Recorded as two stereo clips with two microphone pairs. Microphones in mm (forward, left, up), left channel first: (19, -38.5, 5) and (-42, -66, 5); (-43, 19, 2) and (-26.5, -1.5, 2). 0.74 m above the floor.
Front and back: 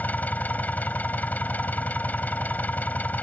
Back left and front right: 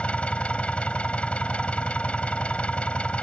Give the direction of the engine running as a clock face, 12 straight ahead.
9 o'clock.